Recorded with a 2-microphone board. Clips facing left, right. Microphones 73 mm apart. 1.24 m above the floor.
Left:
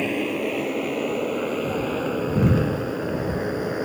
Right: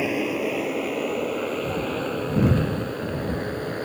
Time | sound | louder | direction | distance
0.0 | a motorcycle | even | 5° right (ahead or behind) | ?